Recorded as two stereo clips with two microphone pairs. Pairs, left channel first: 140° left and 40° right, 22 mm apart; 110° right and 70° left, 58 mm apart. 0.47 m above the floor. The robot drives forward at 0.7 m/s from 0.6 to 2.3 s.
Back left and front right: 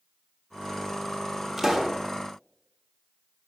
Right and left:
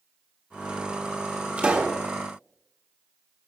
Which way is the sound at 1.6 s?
30° left.